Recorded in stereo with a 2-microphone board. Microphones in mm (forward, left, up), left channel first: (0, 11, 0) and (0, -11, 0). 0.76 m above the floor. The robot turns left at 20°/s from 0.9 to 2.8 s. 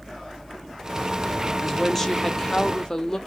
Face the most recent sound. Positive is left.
turn(degrees=30)  # may be behind; listen again after turning